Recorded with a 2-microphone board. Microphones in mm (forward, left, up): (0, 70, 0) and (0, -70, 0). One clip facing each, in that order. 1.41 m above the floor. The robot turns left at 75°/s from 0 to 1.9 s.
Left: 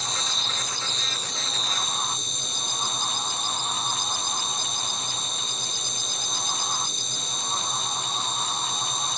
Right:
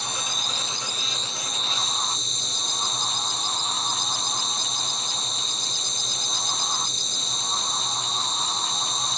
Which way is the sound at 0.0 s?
100° right.